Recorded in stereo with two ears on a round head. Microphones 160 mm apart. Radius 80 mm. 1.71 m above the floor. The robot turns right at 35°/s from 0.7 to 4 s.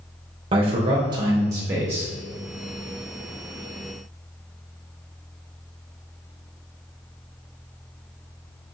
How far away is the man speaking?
About 0.7 m.